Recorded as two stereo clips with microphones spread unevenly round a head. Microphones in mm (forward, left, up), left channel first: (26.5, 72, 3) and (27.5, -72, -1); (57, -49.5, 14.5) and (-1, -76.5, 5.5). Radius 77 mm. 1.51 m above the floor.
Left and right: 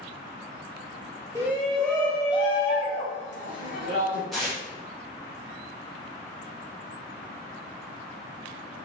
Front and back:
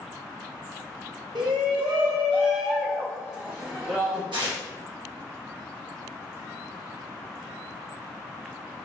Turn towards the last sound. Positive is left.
turn(degrees=180)